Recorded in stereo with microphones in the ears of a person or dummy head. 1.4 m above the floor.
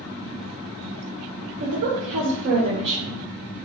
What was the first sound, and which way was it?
A woman speaking, 60° right (ahead or behind).